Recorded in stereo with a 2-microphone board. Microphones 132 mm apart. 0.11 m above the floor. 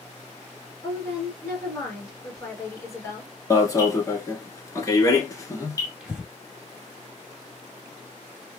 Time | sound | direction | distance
0.8 | a woman speaking | 20° left (ahead or behind) | 1.8 m
3.5 | an alarm | 25° left (ahead or behind) | 1.0 m
6.0 | breathing | 5° right (ahead or behind) | 1.5 m